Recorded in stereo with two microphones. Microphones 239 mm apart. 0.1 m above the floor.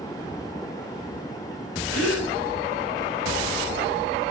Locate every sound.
1.9 s a gasp: 80° left, 7 m